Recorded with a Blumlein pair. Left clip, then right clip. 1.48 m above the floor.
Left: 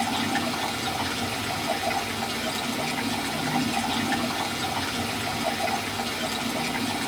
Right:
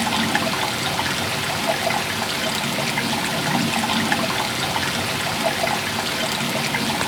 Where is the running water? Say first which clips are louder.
Right 5 dB; 30° right, 1.1 m.